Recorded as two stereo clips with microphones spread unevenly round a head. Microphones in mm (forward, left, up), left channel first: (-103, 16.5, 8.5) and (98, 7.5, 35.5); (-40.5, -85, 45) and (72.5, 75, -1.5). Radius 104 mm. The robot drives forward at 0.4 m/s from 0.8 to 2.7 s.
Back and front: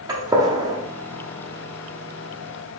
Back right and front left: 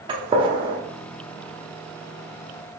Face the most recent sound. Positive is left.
turn(degrees=-175)